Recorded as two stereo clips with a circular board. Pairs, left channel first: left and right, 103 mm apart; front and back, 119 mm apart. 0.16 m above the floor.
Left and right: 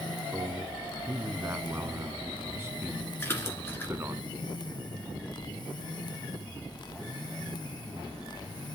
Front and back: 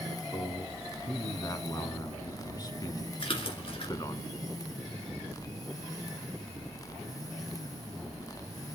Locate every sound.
0.3 s a man speaking: 40° right, 1.4 m
3.2 s a splash: 25° left, 2.5 m